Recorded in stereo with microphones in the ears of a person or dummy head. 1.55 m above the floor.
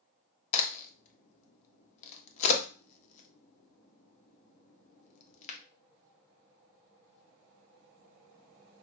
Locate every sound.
0.5 s a crack: 40° left (ahead or behind), 0.8 m